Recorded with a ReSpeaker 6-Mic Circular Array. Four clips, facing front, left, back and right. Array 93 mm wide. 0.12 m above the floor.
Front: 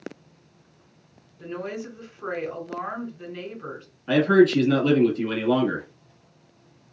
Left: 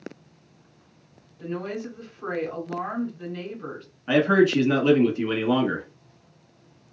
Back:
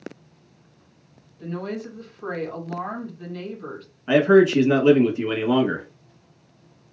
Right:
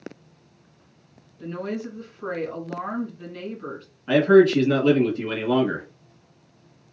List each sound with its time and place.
1.4 s a woman speaking: 5° left, 1.4 m
4.1 s a man speaking: 150° left, 1.1 m